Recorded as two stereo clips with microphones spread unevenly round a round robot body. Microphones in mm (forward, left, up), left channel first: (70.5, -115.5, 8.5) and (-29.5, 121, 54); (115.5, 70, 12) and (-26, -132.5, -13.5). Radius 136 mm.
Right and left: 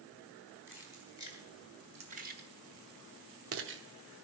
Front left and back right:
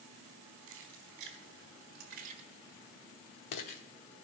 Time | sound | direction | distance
0.7 | keys jangling | 165° right | 3.5 m